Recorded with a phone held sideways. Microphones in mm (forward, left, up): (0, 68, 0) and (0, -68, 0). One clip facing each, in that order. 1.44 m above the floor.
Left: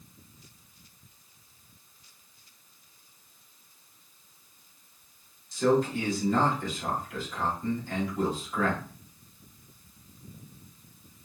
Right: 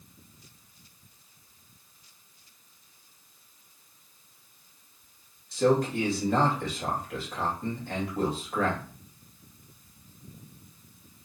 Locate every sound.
5.5 s a man speaking: 60° right (ahead or behind), 2 m